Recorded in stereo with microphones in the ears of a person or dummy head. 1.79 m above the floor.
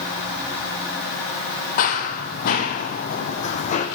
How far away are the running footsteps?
About 2.5 m.